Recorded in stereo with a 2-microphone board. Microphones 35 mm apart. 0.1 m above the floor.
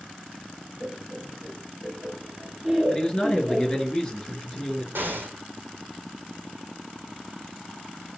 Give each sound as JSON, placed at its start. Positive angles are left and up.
{"t": 0.8, "sound": "laughter", "side_deg": 10, "distance_m": 1.6}
{"t": 2.9, "sound": "a man speaking", "side_deg": 15, "distance_m": 2.0}
{"t": 5.0, "sound": "an explosion", "side_deg": -80, "distance_m": 0.8}